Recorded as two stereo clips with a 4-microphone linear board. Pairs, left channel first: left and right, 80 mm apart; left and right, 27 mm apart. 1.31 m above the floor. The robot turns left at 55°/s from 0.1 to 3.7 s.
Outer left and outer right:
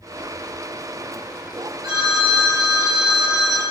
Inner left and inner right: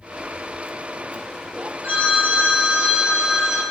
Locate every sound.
1.8 s a phone ringing: 75° right, 3 m; by 3.6 s 175° right, 3 m